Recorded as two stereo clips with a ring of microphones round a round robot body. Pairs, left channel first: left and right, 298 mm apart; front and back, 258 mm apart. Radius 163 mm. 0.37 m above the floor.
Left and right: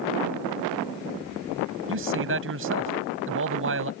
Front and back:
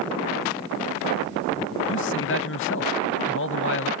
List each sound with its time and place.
1.9 s a man speaking: 45° right